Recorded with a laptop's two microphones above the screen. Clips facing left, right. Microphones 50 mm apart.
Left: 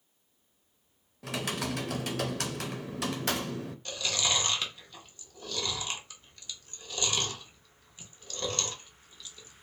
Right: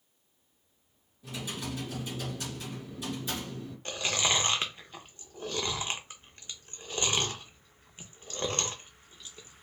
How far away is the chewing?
About 0.8 m.